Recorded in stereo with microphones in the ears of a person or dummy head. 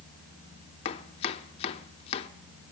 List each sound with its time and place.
0.8 s chopping: 30° left (ahead or behind), 0.6 m